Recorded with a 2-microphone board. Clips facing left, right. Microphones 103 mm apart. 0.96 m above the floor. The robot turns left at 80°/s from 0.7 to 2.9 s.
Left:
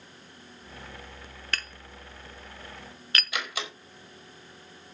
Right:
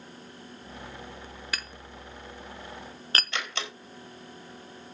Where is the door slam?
10° left (ahead or behind), 4 m.